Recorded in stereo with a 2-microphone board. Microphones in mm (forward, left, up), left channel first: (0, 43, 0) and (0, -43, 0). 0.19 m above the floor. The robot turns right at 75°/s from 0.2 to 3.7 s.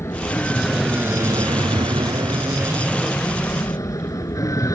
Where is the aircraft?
30° left (ahead or behind); by 4.8 s 40° left (ahead or behind).